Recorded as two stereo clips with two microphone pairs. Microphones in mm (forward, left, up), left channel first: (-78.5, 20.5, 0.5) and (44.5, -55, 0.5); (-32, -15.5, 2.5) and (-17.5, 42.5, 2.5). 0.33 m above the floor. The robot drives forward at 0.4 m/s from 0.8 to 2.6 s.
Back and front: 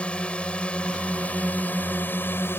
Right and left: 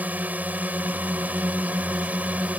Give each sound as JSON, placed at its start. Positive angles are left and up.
{"t": 0.0, "sound": "a drone", "azimuth_deg": 75}